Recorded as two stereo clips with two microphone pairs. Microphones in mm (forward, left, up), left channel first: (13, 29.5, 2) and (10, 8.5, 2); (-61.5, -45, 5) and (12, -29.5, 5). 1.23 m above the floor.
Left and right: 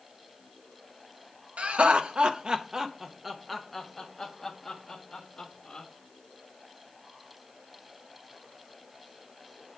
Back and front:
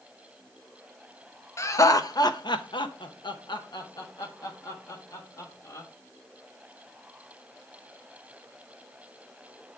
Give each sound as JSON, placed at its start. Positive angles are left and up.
{"t": 1.6, "sound": "laughter", "azimuth_deg": -115, "distance_m": 1.1}